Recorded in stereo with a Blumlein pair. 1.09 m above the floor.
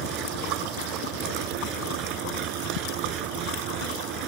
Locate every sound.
0.0 s an engine running: 35° right